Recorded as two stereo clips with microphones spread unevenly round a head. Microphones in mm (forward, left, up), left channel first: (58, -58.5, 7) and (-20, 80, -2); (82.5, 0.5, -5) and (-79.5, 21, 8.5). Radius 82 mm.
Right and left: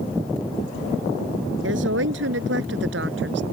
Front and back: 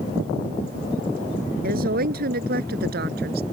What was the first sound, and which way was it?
A woman speaking, 140° left.